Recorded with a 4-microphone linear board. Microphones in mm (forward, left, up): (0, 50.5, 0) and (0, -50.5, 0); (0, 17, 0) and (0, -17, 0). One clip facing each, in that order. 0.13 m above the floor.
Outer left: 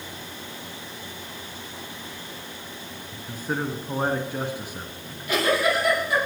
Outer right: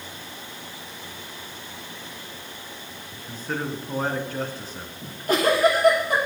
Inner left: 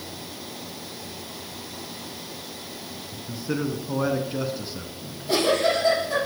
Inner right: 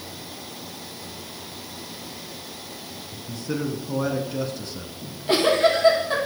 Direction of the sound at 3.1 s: 15° left (ahead or behind).